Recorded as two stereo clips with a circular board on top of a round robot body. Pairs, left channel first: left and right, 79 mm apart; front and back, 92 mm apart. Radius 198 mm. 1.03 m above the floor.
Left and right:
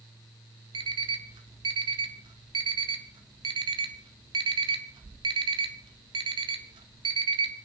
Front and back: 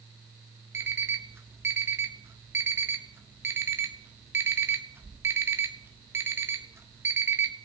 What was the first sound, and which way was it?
An alarm clock, 115° right.